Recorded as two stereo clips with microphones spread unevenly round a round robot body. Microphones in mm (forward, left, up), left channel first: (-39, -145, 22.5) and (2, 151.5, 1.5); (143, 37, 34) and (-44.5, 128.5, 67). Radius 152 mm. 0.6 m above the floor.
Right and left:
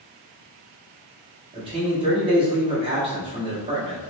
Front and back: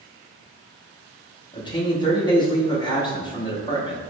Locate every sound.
1.5 s a man speaking: 20° left, 1.3 m